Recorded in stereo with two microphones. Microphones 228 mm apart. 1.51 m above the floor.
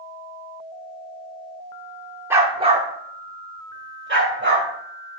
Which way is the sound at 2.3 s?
10° right (ahead or behind).